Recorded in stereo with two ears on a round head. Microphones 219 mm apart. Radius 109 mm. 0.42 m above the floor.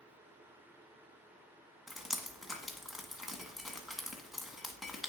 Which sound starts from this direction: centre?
Dripping, at 1.9 s.